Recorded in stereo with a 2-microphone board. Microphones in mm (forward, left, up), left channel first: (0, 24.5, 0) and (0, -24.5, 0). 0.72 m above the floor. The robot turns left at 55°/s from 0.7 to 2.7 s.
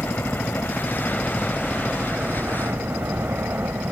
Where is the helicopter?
50° left; by 3.9 s 60° right.